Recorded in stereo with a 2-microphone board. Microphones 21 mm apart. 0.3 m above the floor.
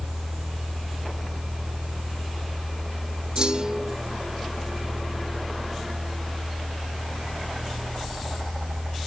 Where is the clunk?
40° right (ahead or behind), 3 m.